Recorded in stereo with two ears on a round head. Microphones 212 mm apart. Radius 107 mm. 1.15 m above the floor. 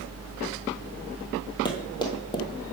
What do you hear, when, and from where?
1.6 s running footsteps: 20° left (ahead or behind), 1.4 m